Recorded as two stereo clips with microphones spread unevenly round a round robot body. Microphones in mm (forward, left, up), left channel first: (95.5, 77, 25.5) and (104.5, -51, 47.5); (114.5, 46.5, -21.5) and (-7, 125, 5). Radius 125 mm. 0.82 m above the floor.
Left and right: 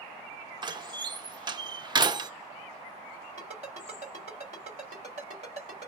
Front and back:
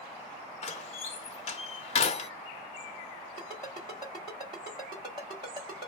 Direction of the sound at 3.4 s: 140° right.